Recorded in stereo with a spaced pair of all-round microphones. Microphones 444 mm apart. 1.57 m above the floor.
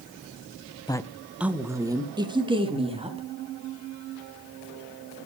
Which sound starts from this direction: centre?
A woman speaking, at 0.9 s.